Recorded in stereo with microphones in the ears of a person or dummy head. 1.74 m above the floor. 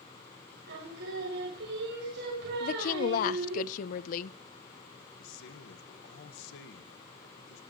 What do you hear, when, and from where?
0.7 s singing: 65° right (ahead or behind), 6.5 m
2.6 s a woman speaking: 50° left (ahead or behind), 0.7 m
5.2 s a man speaking: 65° left (ahead or behind), 1.6 m